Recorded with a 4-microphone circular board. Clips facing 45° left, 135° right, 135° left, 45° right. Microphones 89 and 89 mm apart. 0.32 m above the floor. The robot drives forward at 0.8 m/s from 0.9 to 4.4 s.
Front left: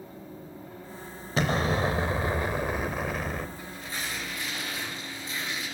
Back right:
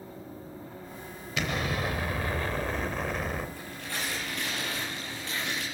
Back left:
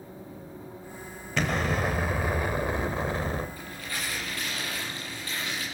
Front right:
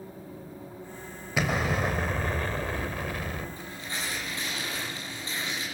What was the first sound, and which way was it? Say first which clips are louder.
An explosion: front left 5 dB, even; 30° left.